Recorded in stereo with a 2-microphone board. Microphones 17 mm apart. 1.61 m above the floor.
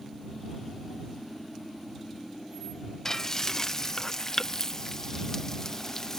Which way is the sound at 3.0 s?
35° left (ahead or behind).